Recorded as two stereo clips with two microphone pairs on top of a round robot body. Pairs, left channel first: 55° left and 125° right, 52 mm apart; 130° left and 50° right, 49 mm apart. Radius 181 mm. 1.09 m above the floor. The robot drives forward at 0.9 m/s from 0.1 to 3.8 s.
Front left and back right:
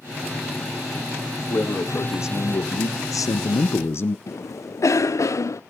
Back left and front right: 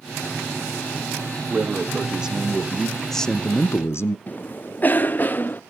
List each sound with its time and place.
1.5 s a man speaking: 15° left, 2 m; by 4.2 s 95° left, 0.6 m
4.3 s a cough: 75° left, 0.7 m